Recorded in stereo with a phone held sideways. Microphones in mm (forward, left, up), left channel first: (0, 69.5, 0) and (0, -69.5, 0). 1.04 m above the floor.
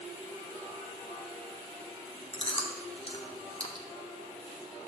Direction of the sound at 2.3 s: 40° left (ahead or behind).